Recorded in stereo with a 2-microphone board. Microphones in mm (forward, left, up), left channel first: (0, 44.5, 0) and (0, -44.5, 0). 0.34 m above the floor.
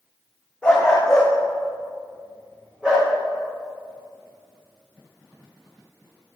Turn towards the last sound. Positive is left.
turn(degrees=-10)  # may be behind; listen again after turning